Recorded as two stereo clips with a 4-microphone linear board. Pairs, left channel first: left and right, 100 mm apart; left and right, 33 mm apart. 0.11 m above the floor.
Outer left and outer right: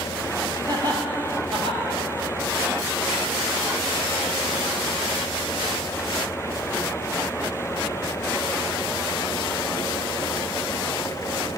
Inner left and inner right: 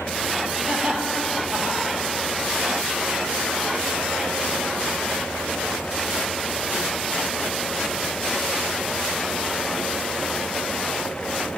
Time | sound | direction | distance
0.7 | laughter | 45° right (ahead or behind) | 1.6 m